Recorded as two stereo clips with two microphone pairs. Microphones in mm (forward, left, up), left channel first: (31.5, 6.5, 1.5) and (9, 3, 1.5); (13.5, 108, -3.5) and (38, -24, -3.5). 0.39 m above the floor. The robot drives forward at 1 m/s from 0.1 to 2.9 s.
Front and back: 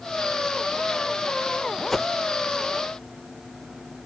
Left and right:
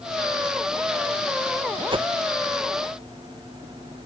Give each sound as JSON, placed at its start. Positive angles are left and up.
{"t": 1.9, "sound": "a whoosh", "azimuth_deg": -50}